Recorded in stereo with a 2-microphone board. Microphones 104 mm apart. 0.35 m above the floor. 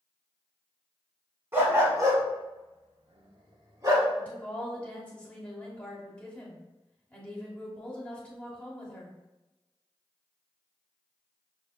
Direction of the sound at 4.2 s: 15° left (ahead or behind).